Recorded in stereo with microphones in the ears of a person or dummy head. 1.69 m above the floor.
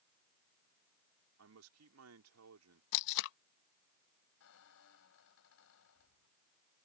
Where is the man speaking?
80° right.